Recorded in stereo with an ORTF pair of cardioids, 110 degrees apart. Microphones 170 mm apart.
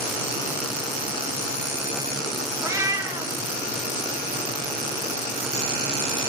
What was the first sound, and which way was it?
A cat meowing, 20° right.